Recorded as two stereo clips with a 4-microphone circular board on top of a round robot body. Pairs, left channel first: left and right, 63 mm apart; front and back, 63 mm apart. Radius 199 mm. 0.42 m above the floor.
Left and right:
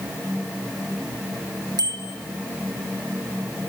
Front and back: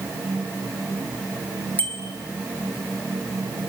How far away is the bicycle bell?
About 4 m.